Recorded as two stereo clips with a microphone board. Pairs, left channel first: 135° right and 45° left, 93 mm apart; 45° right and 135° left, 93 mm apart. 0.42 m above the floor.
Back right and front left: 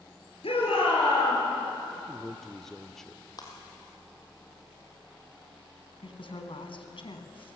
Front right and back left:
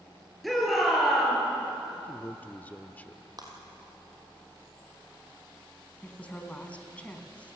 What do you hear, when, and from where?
0.4 s a shout: 135° right, 7 m
2.0 s a man speaking: 55° right, 0.7 m
3.4 s breaking glass: straight behind, 4 m
6.0 s a woman speaking: 120° right, 3 m